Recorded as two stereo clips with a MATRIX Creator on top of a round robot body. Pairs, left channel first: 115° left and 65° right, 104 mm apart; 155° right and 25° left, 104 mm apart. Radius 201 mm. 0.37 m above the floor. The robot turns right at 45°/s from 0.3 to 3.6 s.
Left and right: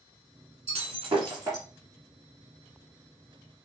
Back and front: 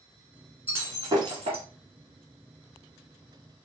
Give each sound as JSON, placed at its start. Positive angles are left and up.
{"t": 0.7, "sound": "breaking glass", "azimuth_deg": -45, "distance_m": 1.4}